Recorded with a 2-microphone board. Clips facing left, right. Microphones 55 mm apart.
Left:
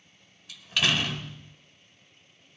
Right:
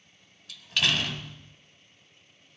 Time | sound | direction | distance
0.5 | a door slam | 5° left (ahead or behind) | 1.2 m